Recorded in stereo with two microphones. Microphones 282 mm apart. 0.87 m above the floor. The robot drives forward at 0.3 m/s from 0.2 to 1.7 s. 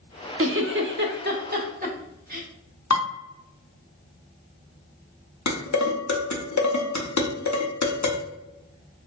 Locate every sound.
0.4 s a giggle: 50° right (ahead or behind), 0.5 m; by 2.5 s 30° right (ahead or behind), 0.8 m
2.9 s dishes clattering: 80° left, 1.2 m
5.5 s dishes clattering: 80° left, 0.8 m